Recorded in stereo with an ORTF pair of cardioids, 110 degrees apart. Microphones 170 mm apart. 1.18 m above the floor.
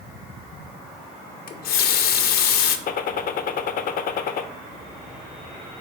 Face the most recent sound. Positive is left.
turn(degrees=60)